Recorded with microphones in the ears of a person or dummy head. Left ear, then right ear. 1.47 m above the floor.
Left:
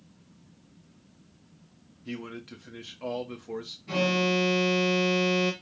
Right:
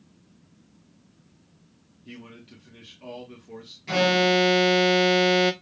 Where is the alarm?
45° right (ahead or behind), 0.6 m.